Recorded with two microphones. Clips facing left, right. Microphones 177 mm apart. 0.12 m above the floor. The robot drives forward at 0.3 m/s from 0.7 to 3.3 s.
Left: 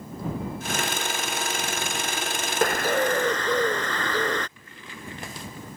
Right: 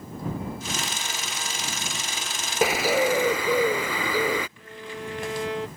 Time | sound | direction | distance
2.6 | a bird | 5° right (ahead or behind) | ?
4.6 | a violin | 80° right | ?